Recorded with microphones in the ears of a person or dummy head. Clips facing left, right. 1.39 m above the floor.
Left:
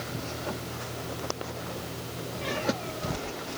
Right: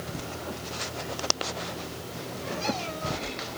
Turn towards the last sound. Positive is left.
No sound to turn to.